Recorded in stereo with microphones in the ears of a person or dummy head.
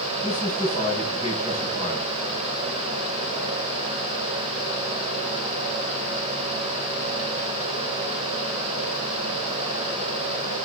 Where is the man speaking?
25° right (ahead or behind), 8 m.